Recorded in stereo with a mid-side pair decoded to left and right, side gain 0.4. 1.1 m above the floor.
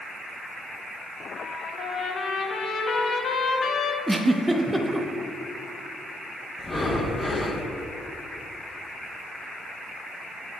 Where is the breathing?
30° left, 1.2 m.